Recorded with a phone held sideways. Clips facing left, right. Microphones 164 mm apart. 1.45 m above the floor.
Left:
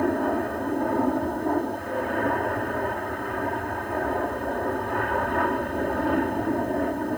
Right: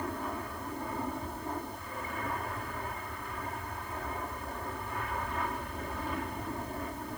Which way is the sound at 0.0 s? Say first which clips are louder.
Left 14 dB; 65° left (ahead or behind).